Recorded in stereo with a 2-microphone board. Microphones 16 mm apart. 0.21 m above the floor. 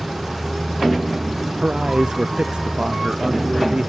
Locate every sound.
1.6 s a man speaking: 55° right (ahead or behind)